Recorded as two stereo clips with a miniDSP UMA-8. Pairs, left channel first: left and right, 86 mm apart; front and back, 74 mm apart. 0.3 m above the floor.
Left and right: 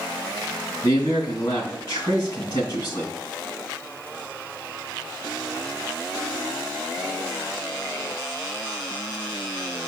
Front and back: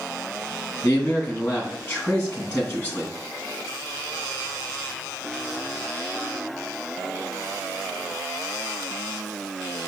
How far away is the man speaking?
About 2.5 m.